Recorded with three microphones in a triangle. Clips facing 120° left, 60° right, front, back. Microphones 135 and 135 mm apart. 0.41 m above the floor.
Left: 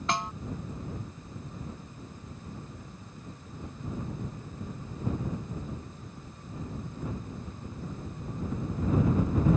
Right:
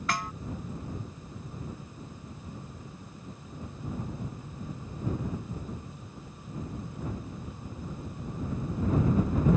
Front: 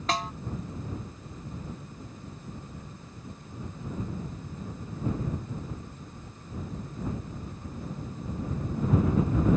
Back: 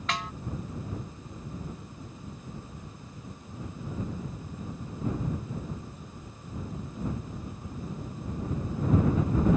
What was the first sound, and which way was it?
A snare drum, 55° left.